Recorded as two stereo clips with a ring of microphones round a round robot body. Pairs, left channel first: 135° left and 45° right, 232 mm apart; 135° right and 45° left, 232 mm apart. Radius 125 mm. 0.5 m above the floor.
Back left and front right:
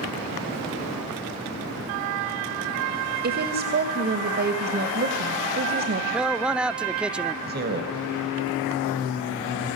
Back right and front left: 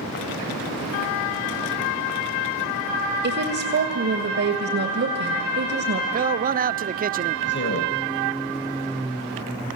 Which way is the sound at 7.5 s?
95° right.